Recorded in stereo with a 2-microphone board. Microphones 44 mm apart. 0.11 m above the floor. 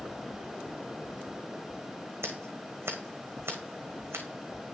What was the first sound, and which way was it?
Scissors, 80° right.